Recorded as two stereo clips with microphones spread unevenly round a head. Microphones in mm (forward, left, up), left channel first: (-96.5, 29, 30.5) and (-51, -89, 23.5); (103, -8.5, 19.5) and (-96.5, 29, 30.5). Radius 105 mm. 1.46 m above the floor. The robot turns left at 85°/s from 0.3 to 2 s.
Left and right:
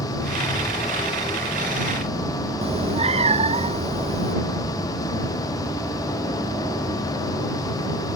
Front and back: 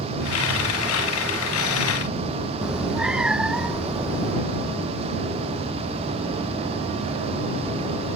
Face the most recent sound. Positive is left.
turn(degrees=-105)